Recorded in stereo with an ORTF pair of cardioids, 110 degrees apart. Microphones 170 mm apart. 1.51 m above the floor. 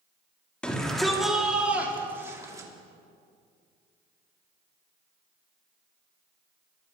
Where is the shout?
5° left, 3 m; by 2.7 s 20° right, 3.5 m.